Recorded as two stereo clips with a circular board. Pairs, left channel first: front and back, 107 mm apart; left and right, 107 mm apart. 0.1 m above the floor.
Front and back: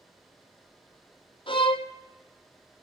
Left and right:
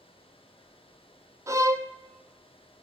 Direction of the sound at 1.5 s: 30° right.